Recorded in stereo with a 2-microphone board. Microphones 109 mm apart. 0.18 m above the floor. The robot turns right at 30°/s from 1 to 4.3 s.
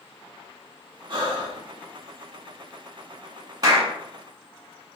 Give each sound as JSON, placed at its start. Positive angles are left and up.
{"t": 1.1, "sound": "breathing", "side_deg": -50, "distance_m": 0.9}
{"t": 3.6, "sound": "a clap", "side_deg": -40, "distance_m": 1.2}